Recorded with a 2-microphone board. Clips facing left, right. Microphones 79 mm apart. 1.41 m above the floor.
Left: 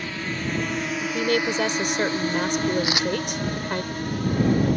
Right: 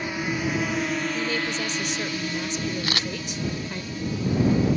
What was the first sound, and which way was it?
A drone, 15° right (ahead or behind).